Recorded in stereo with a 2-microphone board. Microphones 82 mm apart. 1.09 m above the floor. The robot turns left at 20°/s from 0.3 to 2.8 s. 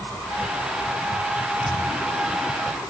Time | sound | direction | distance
1.6 | a thud | 80° right | ?